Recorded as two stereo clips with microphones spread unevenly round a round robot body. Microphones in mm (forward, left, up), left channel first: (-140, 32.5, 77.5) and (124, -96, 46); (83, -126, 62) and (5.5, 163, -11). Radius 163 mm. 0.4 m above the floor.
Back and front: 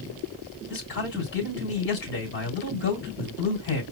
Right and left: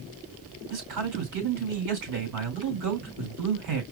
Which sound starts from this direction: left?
A man speaking, at 0.7 s.